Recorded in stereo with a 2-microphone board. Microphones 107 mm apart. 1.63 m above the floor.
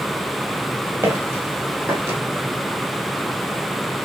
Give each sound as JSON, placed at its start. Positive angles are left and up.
{"t": 1.0, "sound": "footsteps", "side_deg": -25, "distance_m": 2.0}